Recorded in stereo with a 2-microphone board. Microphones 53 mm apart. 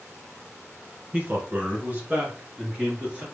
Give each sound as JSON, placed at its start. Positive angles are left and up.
{"t": 1.1, "sound": "a man speaking", "side_deg": -35, "distance_m": 1.9}